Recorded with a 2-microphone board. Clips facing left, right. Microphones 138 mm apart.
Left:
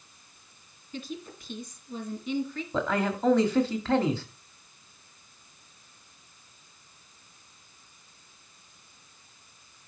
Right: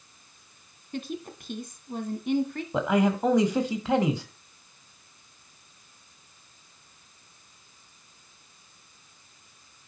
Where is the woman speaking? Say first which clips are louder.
Right 4 dB; 55° right (ahead or behind), 1.9 m.